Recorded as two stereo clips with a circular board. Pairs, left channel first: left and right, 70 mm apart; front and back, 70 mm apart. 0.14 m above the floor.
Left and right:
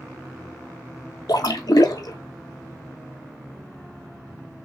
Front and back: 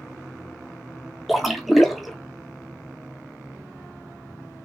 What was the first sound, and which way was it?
A splash, 90° left.